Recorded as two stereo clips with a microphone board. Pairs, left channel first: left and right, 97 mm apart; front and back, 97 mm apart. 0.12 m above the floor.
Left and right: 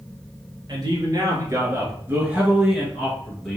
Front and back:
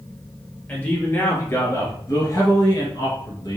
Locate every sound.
0.7 s a man speaking: 65° right, 1.7 m; by 3.6 s 15° left, 1.6 m